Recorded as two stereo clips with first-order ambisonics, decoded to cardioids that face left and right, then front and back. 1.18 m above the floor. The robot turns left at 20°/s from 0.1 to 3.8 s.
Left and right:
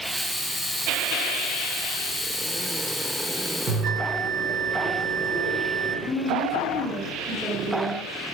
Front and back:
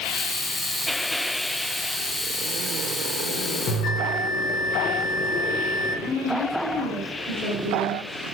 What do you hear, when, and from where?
3.7 s a bell: 40° right, 0.5 m
6.0 s a woman speaking: 175° right, 1.3 m